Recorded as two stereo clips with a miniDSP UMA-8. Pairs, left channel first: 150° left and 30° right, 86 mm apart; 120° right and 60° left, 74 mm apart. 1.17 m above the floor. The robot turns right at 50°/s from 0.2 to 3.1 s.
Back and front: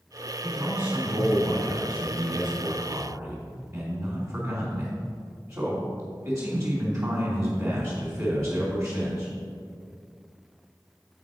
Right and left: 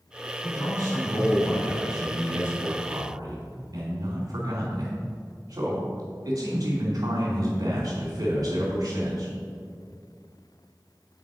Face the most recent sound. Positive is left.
turn(degrees=25)